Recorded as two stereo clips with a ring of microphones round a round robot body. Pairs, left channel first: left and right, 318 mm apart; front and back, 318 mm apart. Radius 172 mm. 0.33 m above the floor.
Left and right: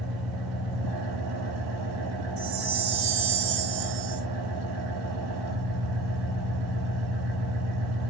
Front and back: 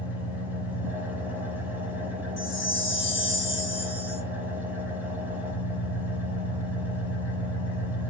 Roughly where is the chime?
Right.